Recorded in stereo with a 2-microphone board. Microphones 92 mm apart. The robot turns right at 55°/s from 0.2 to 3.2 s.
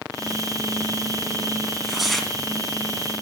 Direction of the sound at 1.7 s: 10° right (ahead or behind).